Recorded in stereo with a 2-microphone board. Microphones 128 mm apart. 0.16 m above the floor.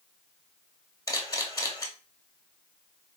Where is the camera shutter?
25° left (ahead or behind), 0.9 m.